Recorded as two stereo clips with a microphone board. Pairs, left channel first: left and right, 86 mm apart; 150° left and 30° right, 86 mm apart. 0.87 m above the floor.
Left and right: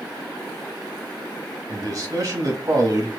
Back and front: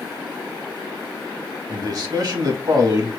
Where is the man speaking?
50° right, 1.6 m.